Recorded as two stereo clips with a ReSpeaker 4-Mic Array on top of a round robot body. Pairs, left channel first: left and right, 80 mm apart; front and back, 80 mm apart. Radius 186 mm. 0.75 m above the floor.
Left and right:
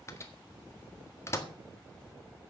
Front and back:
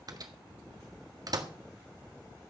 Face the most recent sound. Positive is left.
turn(degrees=145)